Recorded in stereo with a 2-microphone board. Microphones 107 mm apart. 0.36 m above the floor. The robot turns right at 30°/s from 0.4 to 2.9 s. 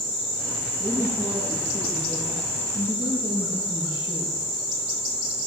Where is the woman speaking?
20° right, 9 m; by 4.4 s 40° left, 9 m.